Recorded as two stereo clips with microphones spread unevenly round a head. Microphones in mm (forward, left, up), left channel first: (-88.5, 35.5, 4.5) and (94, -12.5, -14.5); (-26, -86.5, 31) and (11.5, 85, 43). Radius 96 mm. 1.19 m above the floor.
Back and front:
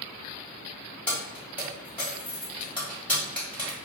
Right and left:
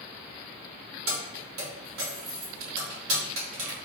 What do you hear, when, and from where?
1.1 s keys jangling: 85° left, 1.3 m